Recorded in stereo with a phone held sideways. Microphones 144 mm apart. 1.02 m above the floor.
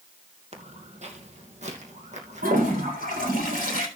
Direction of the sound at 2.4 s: 75° right (ahead or behind).